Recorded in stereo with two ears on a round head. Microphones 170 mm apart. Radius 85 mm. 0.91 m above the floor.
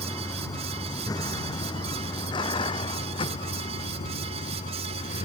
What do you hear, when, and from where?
0.0 s a vehicle: 15° left (ahead or behind); by 5.2 s 35° left (ahead or behind)